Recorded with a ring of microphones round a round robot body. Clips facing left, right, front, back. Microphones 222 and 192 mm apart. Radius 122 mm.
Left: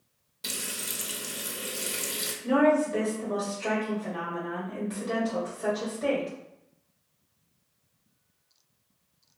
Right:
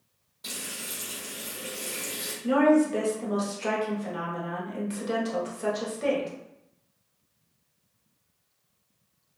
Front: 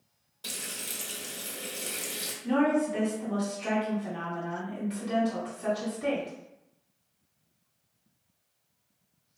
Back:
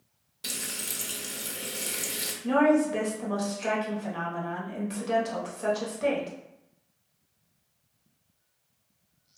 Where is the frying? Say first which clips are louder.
Left 1 dB, back 2 dB; 120° left, 0.7 m.